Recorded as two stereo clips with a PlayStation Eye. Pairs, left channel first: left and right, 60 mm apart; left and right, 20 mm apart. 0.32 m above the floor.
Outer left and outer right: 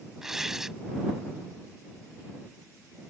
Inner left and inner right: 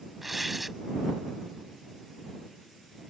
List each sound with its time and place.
0.2 s tearing paper: 5° right (ahead or behind)